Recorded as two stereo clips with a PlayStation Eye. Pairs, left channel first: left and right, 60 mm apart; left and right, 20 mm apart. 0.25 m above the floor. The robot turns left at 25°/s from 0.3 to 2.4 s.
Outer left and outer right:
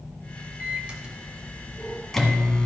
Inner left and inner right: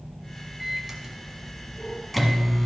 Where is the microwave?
150° right, 1.4 m; by 2.7 s 165° left, 1.4 m.